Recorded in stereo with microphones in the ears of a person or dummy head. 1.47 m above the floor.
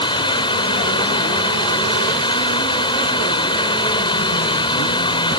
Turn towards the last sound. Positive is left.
turn(degrees=25)  # may be behind; listen again after turning